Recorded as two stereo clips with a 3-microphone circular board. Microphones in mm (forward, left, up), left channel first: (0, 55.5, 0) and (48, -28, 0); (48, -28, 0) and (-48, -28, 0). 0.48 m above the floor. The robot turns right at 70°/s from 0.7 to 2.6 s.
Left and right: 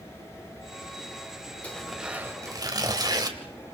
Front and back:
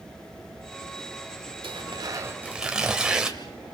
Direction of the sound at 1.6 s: 165° right.